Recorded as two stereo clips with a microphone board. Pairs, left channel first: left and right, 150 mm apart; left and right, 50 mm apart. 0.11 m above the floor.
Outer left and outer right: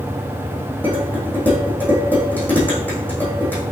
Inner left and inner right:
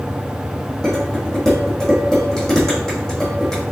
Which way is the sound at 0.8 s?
10° left (ahead or behind).